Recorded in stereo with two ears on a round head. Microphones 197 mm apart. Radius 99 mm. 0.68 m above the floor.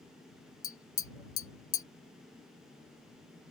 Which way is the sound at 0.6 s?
20° left (ahead or behind).